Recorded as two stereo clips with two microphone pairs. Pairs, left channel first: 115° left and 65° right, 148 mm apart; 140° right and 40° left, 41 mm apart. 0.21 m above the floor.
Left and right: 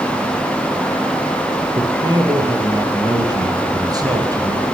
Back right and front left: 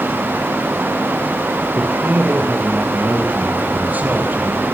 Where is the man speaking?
Straight ahead, 7 m.